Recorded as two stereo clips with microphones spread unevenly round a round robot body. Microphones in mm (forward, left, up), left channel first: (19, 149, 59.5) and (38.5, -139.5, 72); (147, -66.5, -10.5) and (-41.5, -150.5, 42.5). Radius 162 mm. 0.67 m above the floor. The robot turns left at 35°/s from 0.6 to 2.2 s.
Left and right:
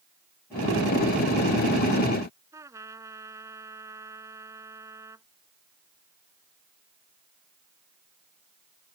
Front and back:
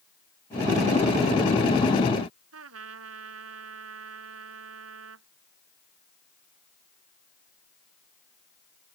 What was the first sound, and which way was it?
A trumpet, 165° right.